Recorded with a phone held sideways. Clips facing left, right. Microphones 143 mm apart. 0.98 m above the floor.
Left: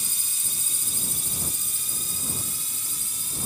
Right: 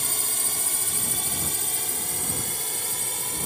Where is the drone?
65° right (ahead or behind).